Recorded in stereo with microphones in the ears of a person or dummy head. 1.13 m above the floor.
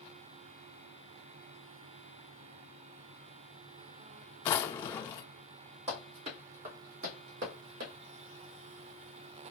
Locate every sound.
4.5 s a drawer: 30° left (ahead or behind), 0.5 m
5.9 s running footsteps: 30° right (ahead or behind), 1.8 m; by 7.9 s 55° right (ahead or behind), 1.9 m